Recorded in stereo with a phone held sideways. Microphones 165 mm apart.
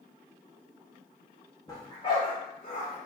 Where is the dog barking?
25° left (ahead or behind), 1.5 m; by 3.0 s 55° left (ahead or behind), 1.9 m.